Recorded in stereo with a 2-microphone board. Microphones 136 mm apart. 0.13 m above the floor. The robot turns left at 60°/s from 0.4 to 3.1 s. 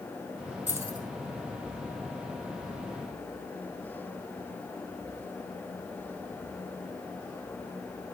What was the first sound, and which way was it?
Keys jangling, 10° right (ahead or behind).